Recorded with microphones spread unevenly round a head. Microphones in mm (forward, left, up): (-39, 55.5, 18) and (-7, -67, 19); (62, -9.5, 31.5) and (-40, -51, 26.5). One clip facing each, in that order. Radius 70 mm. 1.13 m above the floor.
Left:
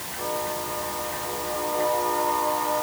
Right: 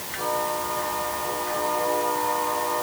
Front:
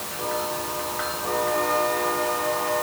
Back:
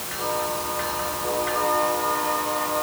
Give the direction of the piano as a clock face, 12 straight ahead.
I don't hear a piano.